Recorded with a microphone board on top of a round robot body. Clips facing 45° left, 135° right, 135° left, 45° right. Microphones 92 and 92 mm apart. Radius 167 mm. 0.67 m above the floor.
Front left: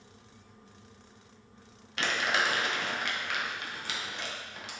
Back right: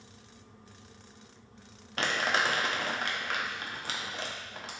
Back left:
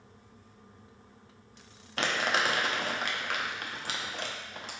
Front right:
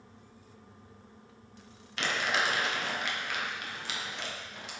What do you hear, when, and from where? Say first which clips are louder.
2.0 s crumpling: even, back left 2 dB; 175° left, 0.8 m